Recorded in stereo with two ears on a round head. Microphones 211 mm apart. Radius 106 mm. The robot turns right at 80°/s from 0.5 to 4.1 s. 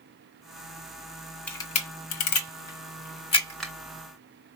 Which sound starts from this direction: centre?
A camera shutter, at 1.5 s.